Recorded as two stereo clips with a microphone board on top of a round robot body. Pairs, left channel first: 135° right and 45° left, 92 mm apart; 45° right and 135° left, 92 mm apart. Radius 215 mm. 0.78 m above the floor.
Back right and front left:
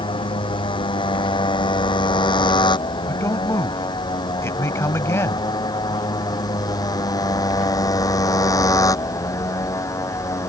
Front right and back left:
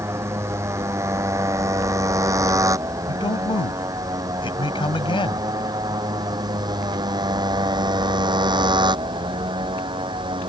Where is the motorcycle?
165° right; by 10.5 s 170° left.